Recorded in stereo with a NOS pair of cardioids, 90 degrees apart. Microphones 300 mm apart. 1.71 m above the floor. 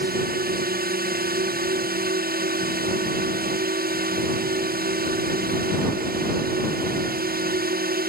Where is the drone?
30° right.